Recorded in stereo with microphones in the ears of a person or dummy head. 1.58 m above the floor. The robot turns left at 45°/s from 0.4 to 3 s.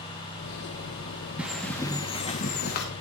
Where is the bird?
175° right, 2 m; by 2.9 s 120° left, 2 m.